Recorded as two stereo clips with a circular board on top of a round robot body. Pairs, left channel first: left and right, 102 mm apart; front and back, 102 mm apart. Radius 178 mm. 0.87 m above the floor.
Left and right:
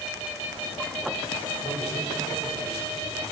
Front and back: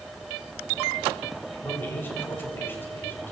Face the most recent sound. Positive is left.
turn(degrees=70)